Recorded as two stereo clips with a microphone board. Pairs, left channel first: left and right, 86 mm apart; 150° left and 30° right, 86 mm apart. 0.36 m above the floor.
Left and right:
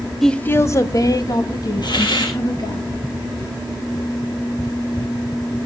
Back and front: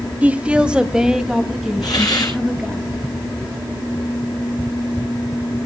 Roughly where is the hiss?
Left.